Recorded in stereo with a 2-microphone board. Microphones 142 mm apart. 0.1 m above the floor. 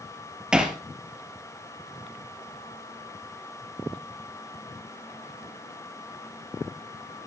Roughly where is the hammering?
Centre.